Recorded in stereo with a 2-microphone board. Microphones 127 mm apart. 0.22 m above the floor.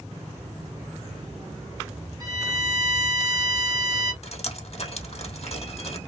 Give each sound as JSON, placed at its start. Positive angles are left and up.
{"t": 2.2, "sound": "a violin", "side_deg": -30, "distance_m": 1.3}
{"t": 4.2, "sound": "dripping", "side_deg": 55, "distance_m": 2.0}